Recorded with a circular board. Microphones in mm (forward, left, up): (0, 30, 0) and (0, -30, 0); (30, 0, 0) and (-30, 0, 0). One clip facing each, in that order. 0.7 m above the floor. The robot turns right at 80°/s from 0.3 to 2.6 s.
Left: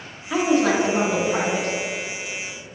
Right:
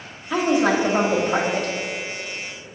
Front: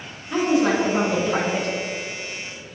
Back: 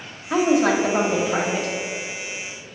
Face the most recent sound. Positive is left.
turn(degrees=-5)